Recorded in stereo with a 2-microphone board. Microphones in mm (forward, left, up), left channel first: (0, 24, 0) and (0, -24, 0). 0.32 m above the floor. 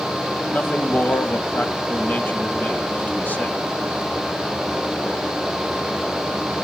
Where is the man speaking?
35° left (ahead or behind), 1.5 m.